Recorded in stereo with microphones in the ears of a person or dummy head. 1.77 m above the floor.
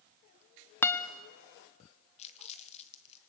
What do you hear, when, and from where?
0.8 s a guitar: 10° left (ahead or behind), 0.6 m
2.2 s crumpling: 35° left (ahead or behind), 1.3 m